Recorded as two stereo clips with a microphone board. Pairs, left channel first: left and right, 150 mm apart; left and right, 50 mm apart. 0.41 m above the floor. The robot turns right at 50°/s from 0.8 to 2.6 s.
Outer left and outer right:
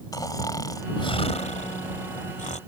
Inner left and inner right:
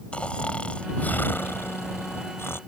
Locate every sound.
0.1 s snoring: 25° left; by 2.6 s 115° left